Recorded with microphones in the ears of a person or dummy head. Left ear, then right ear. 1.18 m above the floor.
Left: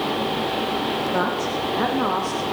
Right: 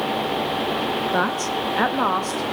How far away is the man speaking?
About 0.7 m.